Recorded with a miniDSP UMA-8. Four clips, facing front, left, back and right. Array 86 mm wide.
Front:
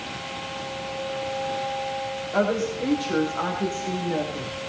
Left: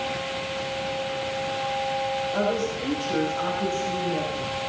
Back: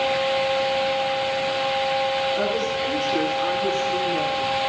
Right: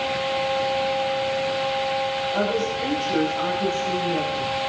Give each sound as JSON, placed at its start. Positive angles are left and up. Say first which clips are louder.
{"t": 2.3, "sound": "a woman speaking", "louder": "right 2 dB, even", "azimuth_deg": -5, "distance_m": 8.5}